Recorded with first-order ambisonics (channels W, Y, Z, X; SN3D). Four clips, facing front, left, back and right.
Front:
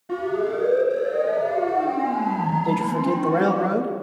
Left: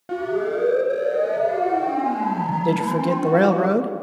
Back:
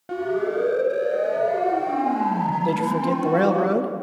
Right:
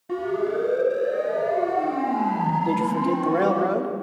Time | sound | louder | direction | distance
0.1 | a siren | left 1 dB, even | 125° left | 5.5 m
2.6 | a man speaking | left 2 dB, even | 110° left | 1.3 m